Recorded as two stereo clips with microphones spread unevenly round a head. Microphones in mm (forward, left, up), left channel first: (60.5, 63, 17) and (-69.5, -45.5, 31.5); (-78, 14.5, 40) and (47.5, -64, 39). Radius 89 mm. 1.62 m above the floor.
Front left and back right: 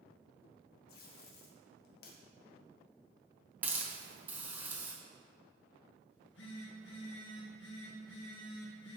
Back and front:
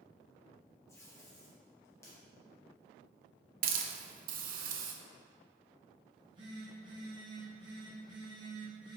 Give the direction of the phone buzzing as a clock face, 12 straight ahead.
11 o'clock.